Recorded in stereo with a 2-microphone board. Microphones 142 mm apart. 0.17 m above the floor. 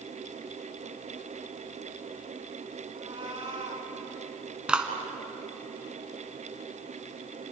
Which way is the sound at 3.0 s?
40° right (ahead or behind).